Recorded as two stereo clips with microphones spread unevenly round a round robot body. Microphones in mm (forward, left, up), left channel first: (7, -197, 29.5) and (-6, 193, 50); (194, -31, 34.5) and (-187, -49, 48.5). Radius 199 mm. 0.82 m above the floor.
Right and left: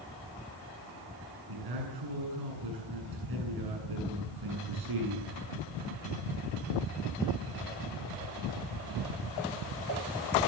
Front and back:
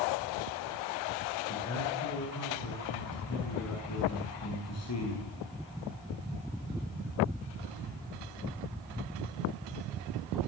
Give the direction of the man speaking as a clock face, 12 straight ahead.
10 o'clock.